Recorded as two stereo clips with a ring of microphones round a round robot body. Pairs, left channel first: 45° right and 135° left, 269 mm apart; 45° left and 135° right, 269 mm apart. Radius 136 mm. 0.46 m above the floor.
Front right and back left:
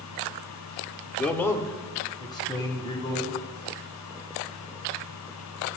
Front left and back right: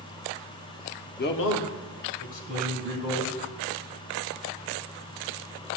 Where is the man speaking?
40° left, 0.8 m; by 3.4 s 30° left, 3 m.